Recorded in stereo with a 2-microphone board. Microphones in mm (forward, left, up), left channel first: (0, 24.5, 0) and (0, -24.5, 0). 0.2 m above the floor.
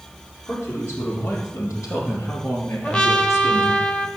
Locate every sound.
0.5 s a man speaking: 55° left (ahead or behind), 6 m
2.8 s a trumpet: 25° left (ahead or behind), 0.9 m